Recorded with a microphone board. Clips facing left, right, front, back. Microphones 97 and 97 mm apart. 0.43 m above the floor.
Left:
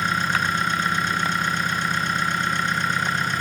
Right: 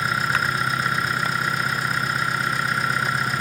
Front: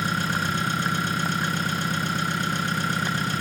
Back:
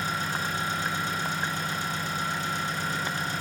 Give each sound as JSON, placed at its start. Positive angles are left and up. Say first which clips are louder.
{"t": 0.0, "sound": "an engine running", "louder": "even, front 4 dB", "azimuth_deg": -5, "distance_m": 1.4}